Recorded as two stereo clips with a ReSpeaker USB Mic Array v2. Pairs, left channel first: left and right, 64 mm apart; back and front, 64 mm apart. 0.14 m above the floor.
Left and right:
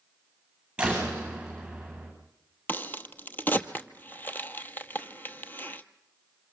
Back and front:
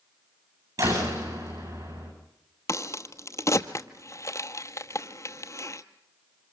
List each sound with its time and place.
0.8 s a door slam: 15° right, 9 m
2.7 s a crack: 150° left, 1.0 m